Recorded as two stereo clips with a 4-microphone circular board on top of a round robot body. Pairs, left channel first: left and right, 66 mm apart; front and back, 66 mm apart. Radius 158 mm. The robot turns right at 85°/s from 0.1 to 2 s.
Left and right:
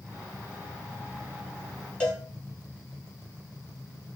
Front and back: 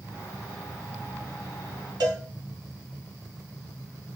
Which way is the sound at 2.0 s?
165° left.